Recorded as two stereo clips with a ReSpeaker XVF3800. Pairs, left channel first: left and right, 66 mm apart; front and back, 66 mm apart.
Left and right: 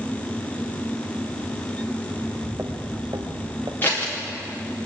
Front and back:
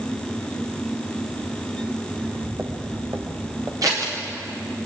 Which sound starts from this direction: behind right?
Footsteps, at 2.1 s.